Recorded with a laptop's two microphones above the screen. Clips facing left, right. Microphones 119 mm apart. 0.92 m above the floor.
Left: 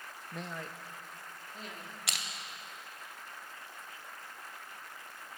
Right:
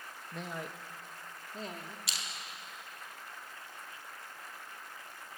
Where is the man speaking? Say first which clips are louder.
Right 1 dB; 5° left (ahead or behind), 0.6 m; by 2.0 s 40° right (ahead or behind), 1.9 m.